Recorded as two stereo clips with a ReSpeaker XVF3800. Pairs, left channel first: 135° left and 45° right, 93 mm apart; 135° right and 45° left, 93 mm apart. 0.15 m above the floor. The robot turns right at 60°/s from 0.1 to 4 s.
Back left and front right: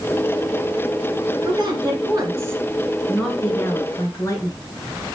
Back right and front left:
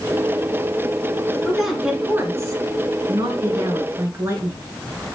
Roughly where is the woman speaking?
Ahead right.